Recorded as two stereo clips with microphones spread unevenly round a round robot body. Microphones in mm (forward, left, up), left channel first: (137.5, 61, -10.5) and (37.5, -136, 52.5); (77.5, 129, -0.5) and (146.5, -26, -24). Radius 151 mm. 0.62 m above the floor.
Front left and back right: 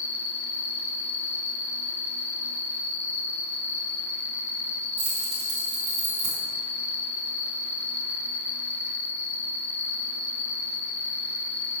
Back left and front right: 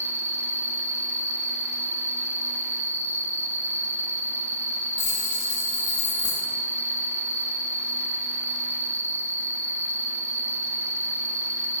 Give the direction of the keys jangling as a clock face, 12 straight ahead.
5 o'clock.